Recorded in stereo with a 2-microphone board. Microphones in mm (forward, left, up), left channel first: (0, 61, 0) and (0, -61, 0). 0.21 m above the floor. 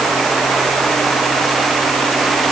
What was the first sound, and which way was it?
Only background noise.